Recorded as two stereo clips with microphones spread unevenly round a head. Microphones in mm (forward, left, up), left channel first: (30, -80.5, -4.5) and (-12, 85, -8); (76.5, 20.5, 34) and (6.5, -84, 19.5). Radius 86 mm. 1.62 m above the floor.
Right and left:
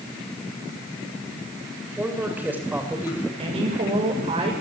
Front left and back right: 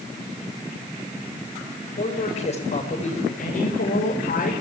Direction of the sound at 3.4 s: 50° left.